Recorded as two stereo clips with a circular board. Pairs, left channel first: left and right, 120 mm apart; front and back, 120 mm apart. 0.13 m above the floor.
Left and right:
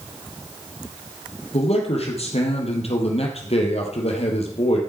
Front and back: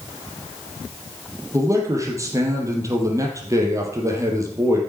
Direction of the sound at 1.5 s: 115° left.